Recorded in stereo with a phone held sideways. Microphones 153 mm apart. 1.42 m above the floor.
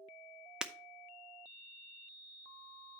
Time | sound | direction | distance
0.6 | breaking glass | 5° right (ahead or behind) | 0.5 m